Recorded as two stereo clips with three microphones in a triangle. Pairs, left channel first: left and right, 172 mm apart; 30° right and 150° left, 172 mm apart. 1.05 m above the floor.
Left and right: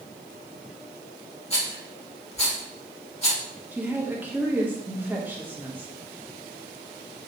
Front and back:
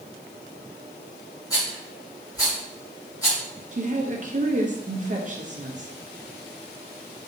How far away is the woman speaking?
About 0.9 m.